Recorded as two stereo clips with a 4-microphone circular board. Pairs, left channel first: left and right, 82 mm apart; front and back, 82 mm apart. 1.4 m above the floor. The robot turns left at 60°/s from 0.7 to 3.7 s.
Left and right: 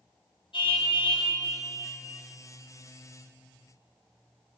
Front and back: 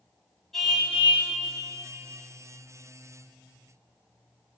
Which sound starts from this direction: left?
A car horn, at 0.5 s.